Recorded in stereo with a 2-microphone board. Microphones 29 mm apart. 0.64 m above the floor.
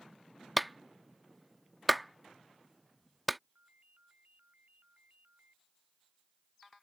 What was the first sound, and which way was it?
A clap, centre (ahead or behind).